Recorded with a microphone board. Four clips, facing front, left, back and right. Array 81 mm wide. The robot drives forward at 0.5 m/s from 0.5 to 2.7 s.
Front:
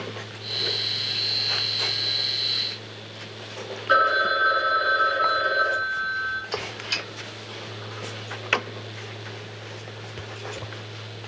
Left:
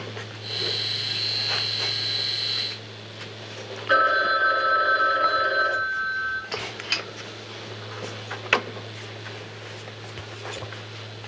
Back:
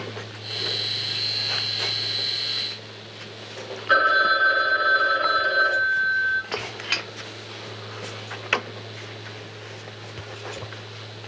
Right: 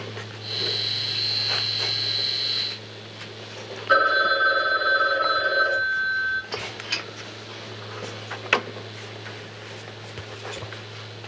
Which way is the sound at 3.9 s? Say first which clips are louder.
Right 1 dB, back 1 dB; 125° left.